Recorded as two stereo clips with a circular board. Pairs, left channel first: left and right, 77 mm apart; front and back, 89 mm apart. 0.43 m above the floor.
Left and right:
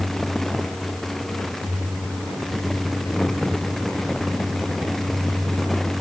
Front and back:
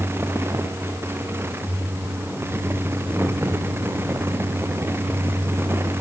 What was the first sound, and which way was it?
Only background noise.